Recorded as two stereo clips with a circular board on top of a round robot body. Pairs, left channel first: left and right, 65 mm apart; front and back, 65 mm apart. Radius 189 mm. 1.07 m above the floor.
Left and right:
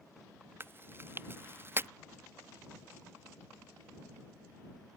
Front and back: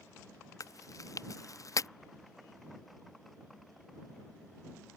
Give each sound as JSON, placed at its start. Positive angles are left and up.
{"t": 0.6, "sound": "chewing", "azimuth_deg": -35}